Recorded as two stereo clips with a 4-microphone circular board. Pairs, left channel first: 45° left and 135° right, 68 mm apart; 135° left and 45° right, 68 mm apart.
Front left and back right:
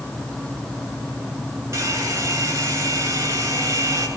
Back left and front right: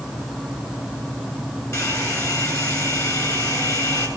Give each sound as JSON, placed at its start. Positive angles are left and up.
{"t": 1.7, "sound": "a hair dryer", "azimuth_deg": 175, "distance_m": 7.5}